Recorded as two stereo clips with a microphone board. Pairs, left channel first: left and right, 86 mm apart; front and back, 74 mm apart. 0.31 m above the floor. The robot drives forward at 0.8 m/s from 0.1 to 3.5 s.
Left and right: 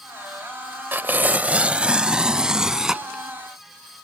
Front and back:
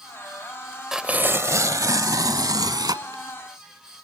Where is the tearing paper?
100° right; by 3.2 s 175° right.